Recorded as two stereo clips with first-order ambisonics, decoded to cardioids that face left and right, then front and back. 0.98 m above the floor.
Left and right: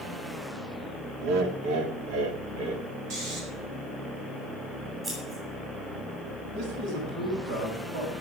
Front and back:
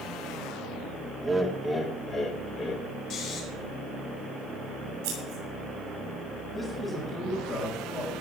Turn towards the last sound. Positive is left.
turn(degrees=-75)